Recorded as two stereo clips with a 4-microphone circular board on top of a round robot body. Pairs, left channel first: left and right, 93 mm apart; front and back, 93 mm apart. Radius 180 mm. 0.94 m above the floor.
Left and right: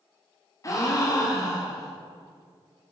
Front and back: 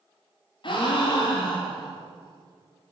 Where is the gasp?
35° left, 1.3 m.